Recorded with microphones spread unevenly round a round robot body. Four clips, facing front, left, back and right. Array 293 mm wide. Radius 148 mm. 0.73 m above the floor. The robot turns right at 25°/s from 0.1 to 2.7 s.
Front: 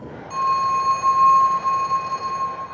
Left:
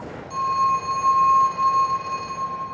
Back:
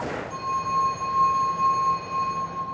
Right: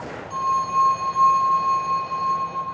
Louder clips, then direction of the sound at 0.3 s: Left 1 dB, front 8 dB; 5° right.